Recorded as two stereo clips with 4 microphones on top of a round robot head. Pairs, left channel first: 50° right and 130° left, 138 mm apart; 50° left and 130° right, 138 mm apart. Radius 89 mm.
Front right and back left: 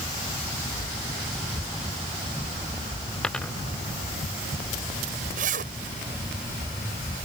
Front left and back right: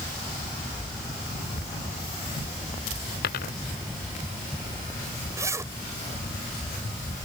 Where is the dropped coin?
35° left.